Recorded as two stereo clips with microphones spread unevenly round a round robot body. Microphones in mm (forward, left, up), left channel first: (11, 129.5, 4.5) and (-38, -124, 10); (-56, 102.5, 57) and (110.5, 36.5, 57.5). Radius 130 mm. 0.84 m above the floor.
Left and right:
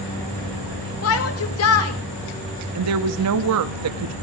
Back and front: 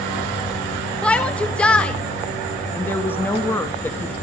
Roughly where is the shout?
Left.